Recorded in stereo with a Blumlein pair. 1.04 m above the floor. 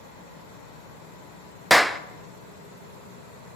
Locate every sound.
1.7 s a clap: straight ahead, 0.7 m